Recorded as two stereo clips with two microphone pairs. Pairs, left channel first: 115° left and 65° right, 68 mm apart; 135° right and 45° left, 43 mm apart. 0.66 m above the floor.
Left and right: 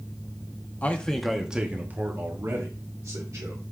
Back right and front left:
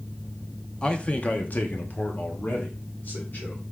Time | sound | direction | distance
0.8 | a man speaking | 165° left | 0.6 m